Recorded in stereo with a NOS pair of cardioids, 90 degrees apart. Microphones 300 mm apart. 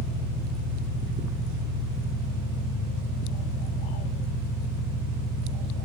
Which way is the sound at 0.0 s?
65° right.